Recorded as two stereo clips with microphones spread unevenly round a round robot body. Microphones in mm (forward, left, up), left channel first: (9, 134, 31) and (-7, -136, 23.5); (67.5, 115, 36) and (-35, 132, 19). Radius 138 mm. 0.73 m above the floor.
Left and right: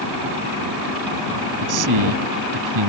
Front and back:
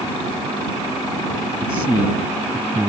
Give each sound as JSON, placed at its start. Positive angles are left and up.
{"t": 1.6, "sound": "a man speaking", "azimuth_deg": -105}